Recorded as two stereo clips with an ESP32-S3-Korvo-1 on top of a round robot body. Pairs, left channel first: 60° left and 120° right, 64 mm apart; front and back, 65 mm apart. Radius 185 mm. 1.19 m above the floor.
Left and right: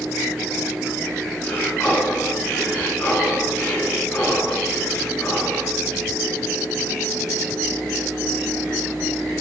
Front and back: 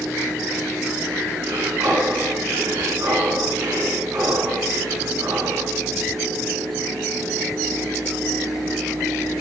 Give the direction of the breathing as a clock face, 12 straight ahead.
8 o'clock.